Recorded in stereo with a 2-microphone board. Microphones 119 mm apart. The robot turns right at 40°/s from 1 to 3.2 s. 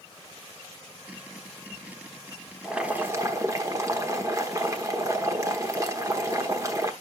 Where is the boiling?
5° right (ahead or behind), 1.1 m; by 6.9 s 25° right (ahead or behind), 1.1 m.